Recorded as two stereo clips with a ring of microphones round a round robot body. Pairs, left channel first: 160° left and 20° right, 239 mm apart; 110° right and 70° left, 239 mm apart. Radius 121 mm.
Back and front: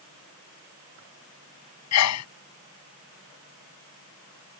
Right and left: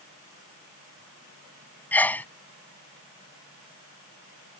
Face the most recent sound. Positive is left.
turn(degrees=165)